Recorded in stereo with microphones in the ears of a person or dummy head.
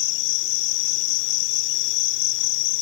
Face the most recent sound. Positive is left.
turn(degrees=65)  # may be behind; listen again after turning